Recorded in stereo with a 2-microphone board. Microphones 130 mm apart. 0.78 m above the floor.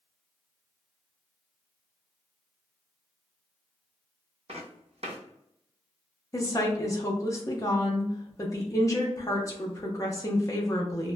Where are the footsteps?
55° right (ahead or behind), 1.5 m.